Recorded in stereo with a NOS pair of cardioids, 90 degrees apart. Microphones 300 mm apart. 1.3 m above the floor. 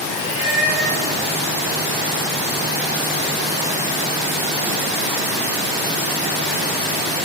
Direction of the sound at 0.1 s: 65° right.